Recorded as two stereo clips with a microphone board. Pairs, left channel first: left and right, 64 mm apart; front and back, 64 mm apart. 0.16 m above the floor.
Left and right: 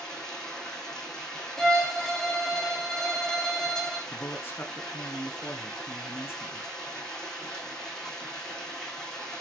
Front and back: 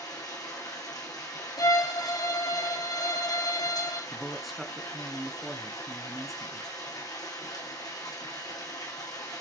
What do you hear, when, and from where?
0.0 s running water: 10° left, 5.5 m
1.6 s a violin: 5° left, 2 m
4.1 s a man speaking: 95° left, 1.8 m